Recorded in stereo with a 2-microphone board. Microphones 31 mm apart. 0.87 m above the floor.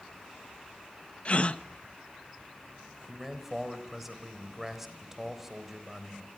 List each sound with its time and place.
1.2 s a gasp: 40° left (ahead or behind), 1.1 m
3.1 s a man speaking: 5° right (ahead or behind), 4 m